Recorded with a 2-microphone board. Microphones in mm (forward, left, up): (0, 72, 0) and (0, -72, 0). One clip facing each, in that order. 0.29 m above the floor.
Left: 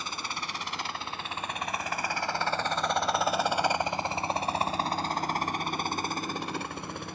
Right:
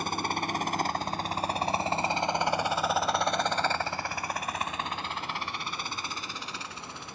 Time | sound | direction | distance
0.0 | a helicopter | 55° right (ahead or behind) | ?